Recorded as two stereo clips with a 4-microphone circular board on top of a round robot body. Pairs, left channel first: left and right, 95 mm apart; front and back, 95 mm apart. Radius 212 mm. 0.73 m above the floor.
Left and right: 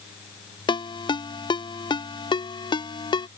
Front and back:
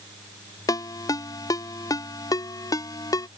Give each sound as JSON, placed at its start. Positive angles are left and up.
{"t": 0.7, "sound": "a ringtone", "azimuth_deg": 55}